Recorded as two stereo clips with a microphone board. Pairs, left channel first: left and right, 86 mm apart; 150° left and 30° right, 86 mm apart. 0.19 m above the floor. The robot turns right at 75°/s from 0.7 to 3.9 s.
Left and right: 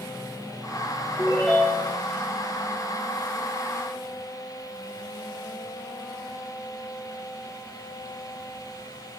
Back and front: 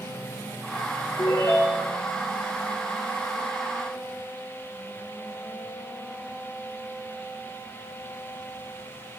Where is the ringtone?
155° left, 4 m; by 2.0 s 140° right, 4 m.